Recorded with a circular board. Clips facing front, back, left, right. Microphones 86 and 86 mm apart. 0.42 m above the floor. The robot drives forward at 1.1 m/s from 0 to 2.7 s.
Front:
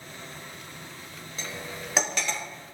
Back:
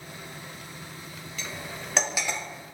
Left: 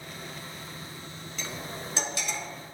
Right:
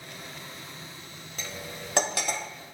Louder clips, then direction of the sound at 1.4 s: Front 1 dB, left 1 dB; 55° right.